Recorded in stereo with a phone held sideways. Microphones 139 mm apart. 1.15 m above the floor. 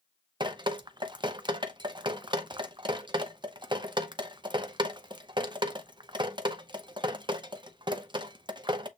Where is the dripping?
35° right (ahead or behind), 0.6 m.